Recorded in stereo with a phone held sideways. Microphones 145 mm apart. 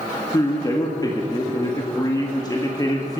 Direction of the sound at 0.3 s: 25° left (ahead or behind).